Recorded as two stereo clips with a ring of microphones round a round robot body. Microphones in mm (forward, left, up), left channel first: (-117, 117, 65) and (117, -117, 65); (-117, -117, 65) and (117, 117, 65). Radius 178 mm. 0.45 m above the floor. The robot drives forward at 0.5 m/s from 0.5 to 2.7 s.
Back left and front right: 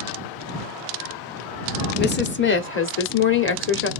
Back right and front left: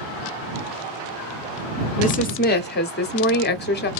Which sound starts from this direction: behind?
A woman speaking, at 2.0 s.